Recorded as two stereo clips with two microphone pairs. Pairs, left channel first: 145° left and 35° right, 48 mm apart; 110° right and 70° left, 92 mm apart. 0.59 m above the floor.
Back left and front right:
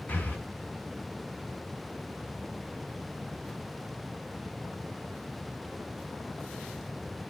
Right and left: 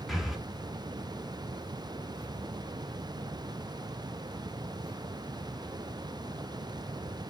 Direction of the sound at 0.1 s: 160° left.